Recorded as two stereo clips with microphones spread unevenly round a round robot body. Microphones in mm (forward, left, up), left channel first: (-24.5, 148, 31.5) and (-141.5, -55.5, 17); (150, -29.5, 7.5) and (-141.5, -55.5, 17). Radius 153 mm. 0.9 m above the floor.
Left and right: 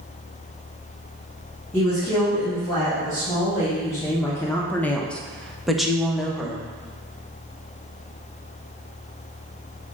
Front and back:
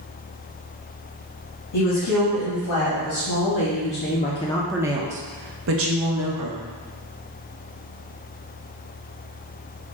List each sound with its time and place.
1.7 s a woman speaking: 20° right, 1.6 m; by 6.6 s 155° left, 1.1 m